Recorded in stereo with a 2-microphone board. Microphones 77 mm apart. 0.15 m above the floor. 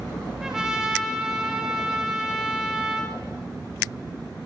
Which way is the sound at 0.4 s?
5° right (ahead or behind).